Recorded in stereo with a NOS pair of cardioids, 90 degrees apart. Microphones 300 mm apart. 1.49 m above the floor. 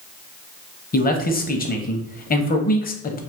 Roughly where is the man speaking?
Ahead left.